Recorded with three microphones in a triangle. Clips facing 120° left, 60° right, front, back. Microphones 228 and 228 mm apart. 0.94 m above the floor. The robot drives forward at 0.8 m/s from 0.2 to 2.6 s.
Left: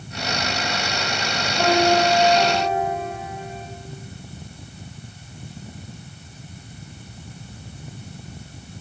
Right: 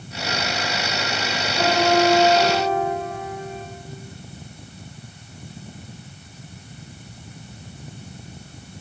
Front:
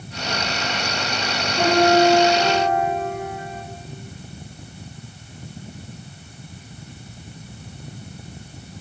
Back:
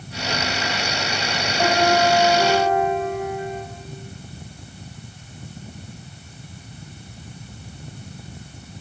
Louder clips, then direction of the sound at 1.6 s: Even, front 4 dB; 10° left.